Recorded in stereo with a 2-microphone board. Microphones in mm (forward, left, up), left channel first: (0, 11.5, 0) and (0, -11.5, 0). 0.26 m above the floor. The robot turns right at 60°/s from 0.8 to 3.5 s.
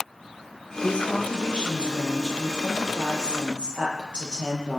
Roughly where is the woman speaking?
Ahead left.